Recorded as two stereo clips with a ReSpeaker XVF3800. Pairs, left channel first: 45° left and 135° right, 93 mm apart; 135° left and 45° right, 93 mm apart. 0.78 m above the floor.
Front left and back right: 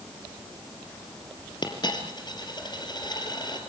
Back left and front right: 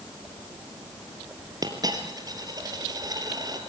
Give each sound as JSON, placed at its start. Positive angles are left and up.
{"t": 1.6, "sound": "a dropped coin", "azimuth_deg": 5, "distance_m": 3.5}